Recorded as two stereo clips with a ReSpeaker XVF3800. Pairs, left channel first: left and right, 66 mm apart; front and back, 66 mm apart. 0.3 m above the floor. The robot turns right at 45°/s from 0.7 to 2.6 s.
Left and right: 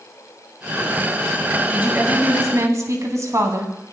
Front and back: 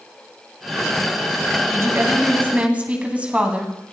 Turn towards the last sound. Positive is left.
turn(degrees=-115)